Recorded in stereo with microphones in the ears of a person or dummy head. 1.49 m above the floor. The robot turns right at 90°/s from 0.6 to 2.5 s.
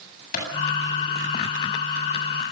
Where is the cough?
No cough in this recording.